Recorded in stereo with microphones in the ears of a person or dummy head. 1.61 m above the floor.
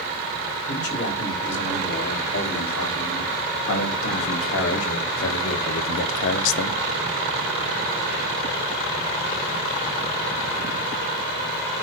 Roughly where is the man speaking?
Left.